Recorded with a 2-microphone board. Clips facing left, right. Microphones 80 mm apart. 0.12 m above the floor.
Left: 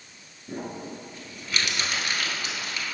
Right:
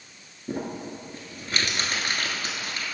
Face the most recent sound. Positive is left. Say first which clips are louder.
# right 3 dB
turn(degrees=-40)  # may be behind; listen again after turning